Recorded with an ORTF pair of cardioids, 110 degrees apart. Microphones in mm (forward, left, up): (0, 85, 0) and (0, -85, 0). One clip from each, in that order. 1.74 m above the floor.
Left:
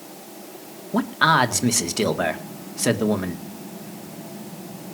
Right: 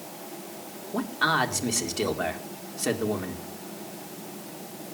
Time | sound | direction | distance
0.9 | a man speaking | 35° left | 2.0 m